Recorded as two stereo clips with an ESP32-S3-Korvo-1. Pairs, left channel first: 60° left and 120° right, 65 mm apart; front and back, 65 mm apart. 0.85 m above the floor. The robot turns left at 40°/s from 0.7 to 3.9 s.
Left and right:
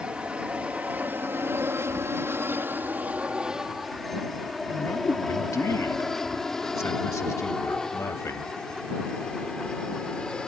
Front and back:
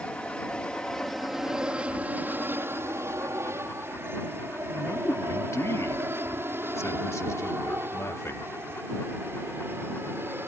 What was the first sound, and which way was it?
An aircraft, 60° right.